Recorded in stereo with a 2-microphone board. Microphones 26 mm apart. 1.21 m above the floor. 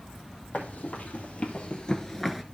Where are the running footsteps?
65° left (ahead or behind), 3 m; by 2.4 s 5° right (ahead or behind), 1.1 m.